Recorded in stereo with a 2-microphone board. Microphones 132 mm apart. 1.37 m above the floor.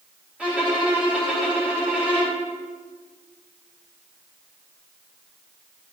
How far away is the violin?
About 3 m.